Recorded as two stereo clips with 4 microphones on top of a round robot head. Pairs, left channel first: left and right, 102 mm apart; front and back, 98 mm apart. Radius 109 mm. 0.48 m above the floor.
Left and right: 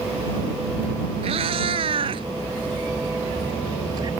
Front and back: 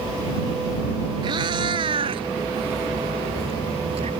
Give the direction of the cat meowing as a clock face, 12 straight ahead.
4 o'clock.